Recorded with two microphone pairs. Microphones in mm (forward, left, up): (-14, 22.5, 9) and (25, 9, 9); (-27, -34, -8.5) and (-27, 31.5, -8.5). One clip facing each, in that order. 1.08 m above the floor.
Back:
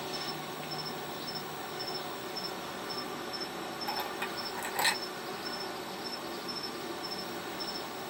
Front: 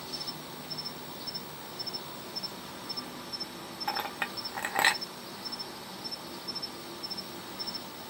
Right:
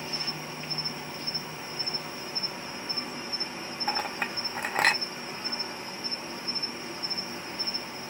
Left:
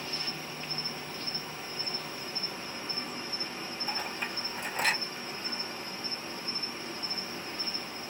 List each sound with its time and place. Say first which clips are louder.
0.0 s an insect: back 4 dB, right 2 dB; 160° right, 1.0 m
3.9 s a clink: front 4 dB, right 6 dB; 65° right, 1.0 m